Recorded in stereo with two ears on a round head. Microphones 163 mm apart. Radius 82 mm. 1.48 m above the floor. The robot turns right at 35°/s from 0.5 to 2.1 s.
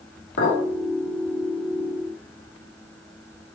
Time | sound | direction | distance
0.4 | a clink | 70° left (ahead or behind) | 2.5 m